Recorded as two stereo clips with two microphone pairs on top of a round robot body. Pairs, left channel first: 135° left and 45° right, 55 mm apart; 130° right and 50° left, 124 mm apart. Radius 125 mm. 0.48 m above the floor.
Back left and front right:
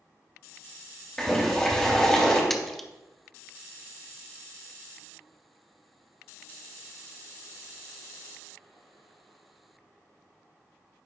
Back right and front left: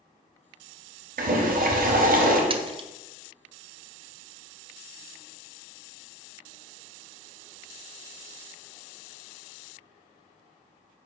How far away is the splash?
About 0.7 m.